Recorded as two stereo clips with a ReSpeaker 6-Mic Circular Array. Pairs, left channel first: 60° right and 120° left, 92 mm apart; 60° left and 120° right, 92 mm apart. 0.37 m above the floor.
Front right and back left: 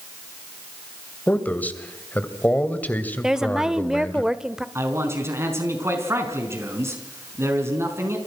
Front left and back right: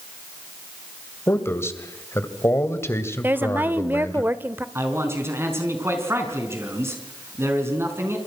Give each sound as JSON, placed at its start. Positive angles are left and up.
{"t": 1.3, "sound": "a man speaking", "azimuth_deg": 5, "distance_m": 2.0}
{"t": 3.2, "sound": "a woman speaking", "azimuth_deg": -165, "distance_m": 1.0}
{"t": 4.8, "sound": "a man speaking", "azimuth_deg": 180, "distance_m": 4.5}